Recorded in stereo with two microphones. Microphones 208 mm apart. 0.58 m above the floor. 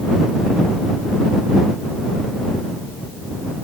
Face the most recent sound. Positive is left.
No sound to turn to.